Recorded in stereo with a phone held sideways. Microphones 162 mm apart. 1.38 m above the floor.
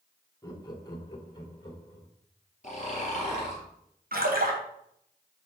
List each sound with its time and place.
0.4 s laughter: 25° left (ahead or behind), 1.2 m; by 2.1 s 30° left (ahead or behind), 2 m
2.6 s snoring: 45° left (ahead or behind), 2.5 m
4.1 s a splash: 65° right (ahead or behind), 1.2 m